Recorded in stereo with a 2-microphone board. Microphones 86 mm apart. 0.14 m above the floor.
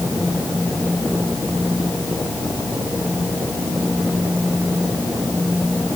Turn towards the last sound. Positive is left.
No sound to turn to.